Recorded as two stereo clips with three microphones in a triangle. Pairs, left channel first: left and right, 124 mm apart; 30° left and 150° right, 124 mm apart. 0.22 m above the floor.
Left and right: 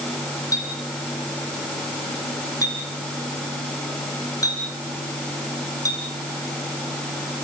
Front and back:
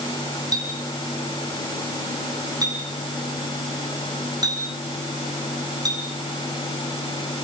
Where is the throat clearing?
No throat clearing in this recording.